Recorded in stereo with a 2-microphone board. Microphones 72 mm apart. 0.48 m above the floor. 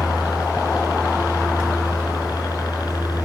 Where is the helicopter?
75° left (ahead or behind); by 3.2 s 70° left (ahead or behind).